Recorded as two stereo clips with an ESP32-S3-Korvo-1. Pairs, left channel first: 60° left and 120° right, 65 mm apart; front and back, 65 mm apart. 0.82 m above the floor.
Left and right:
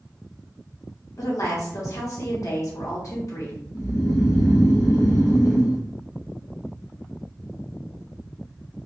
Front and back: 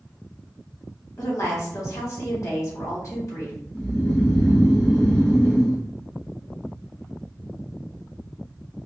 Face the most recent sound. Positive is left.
turn(degrees=70)